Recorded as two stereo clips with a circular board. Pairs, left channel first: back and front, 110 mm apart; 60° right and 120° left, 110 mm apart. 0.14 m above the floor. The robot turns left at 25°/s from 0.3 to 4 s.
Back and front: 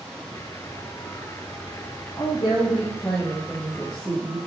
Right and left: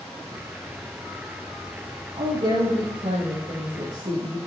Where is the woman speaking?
140° left, 8 m; by 4.4 s 95° left, 8 m.